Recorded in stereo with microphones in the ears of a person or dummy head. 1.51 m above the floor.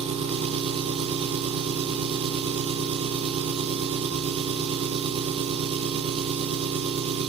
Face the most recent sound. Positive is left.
turn(degrees=-25)  # may be behind; listen again after turning